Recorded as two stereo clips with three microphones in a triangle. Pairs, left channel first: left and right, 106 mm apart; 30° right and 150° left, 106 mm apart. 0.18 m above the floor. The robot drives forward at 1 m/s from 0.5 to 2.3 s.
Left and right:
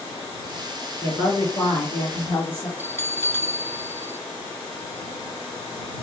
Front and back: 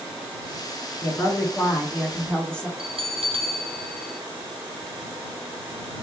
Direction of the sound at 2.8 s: 155° left.